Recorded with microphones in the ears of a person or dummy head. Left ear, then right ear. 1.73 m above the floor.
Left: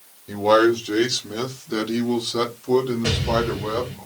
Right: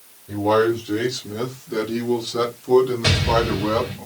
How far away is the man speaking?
About 1.7 m.